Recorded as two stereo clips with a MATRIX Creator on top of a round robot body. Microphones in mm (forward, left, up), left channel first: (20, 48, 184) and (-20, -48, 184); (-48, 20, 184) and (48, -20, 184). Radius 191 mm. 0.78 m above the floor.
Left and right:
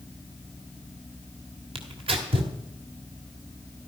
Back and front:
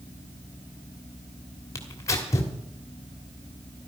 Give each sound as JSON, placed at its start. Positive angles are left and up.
{"t": 1.8, "sound": "tearing paper", "azimuth_deg": -140, "distance_m": 1.4}